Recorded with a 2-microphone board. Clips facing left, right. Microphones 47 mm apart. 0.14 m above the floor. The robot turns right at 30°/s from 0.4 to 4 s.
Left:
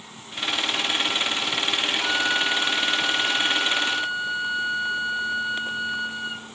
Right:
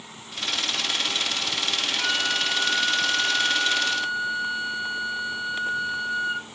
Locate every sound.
2.0 s a flute: 40° right, 1.6 m; by 6.5 s 25° left, 1.6 m